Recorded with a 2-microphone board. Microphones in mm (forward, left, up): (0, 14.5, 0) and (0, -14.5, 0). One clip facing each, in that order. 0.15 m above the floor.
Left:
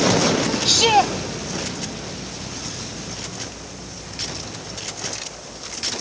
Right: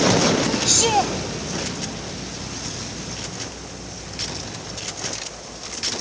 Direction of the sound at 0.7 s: 30° left (ahead or behind).